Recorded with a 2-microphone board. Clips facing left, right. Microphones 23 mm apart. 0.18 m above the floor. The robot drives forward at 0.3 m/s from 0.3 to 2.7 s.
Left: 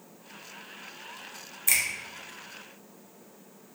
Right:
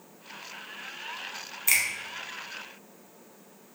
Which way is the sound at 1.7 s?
30° right (ahead or behind).